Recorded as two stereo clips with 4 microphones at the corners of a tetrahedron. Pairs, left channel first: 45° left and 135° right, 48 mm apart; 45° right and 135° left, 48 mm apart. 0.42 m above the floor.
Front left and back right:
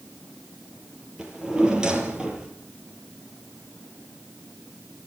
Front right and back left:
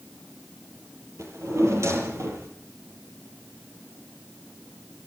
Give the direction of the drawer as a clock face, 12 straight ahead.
7 o'clock.